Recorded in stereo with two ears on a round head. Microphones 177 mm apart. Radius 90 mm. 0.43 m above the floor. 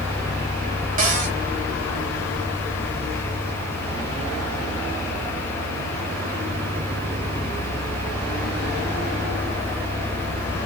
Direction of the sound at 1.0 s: 40° right (ahead or behind).